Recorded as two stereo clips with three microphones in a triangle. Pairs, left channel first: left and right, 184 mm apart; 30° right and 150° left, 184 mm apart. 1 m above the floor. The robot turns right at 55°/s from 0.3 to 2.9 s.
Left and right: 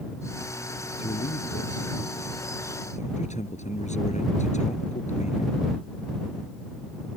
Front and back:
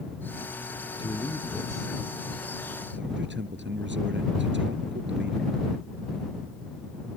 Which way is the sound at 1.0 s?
35° left.